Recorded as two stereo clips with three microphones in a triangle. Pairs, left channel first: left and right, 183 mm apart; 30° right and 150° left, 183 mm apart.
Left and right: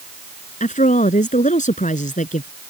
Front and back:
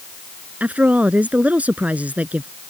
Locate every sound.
0.6 s a woman speaking: 70° left